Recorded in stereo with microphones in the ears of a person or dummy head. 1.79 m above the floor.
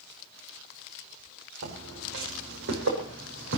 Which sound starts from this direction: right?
Footsteps, at 1.6 s.